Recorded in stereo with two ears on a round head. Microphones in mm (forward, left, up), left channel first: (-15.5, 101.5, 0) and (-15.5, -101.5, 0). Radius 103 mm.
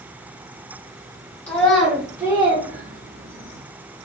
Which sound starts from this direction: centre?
A child speaking, at 1.5 s.